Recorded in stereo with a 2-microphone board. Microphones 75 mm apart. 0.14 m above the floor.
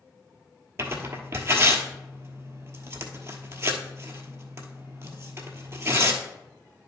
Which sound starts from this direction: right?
Tearing paper, at 0.8 s.